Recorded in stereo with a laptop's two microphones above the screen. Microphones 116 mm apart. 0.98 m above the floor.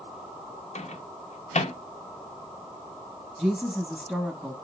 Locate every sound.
0.8 s a microwave: 75° left (ahead or behind), 0.6 m
3.4 s a woman speaking: 10° left (ahead or behind), 0.9 m